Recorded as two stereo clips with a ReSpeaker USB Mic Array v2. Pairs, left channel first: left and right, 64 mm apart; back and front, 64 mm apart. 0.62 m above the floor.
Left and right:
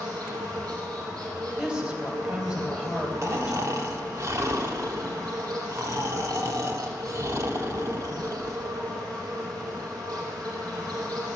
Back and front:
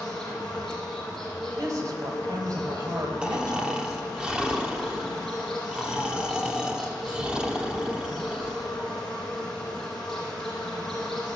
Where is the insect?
100° right, 4.5 m.